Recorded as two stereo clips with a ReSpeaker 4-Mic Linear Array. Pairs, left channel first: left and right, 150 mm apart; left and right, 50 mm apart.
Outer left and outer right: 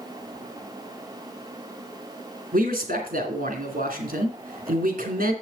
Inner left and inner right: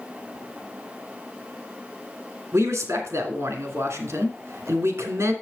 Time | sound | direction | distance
2.5 | a man speaking | 75° right (ahead or behind) | 2.5 m